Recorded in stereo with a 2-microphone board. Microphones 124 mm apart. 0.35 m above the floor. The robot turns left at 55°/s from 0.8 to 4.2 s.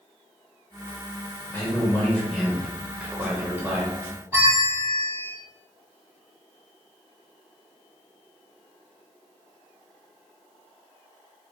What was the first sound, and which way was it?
A man speaking, 20° left (ahead or behind).